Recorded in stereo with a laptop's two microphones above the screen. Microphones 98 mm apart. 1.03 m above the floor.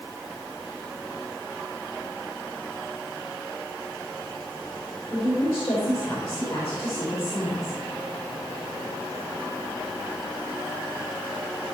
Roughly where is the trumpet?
I don't hear a trumpet.